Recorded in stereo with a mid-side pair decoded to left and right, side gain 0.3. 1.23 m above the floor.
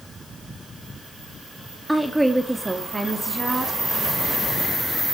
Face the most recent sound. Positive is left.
turn(degrees=-35)